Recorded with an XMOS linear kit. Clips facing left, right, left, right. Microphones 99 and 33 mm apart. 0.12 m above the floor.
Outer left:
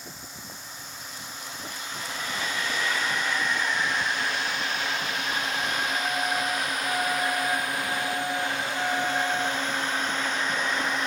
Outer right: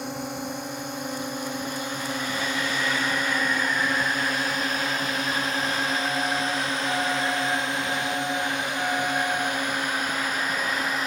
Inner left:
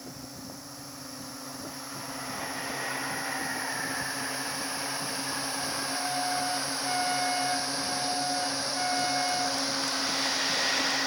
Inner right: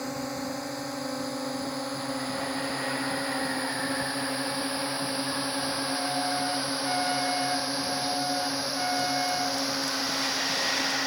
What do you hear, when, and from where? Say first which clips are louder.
0.0 s a drone: outer right 13 dB, inner right 10 dB; 65° right (ahead or behind); by 11.1 s 5° right (ahead or behind)